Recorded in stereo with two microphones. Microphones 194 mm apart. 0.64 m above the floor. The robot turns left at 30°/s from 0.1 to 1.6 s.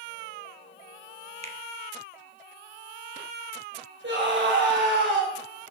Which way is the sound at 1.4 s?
35° right (ahead or behind).